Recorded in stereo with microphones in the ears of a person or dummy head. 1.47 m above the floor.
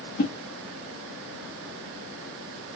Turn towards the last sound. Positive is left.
turn(degrees=50)  # may be behind; listen again after turning